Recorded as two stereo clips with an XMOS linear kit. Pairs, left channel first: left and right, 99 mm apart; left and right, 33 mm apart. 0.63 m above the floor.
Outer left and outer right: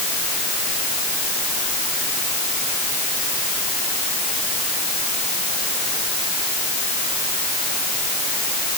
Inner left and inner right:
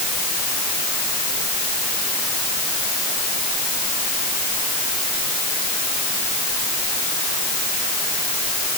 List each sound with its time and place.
Only background noise.